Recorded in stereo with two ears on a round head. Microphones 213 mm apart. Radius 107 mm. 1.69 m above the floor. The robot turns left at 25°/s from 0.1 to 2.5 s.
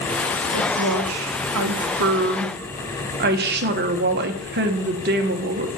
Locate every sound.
0.5 s a woman speaking: 85° right, 1.4 m; by 5.7 s 135° right, 1.4 m